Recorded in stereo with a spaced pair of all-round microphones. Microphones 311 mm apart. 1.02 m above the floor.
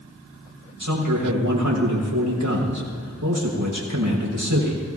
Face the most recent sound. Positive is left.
turn(degrees=-75)  # may be behind; listen again after turning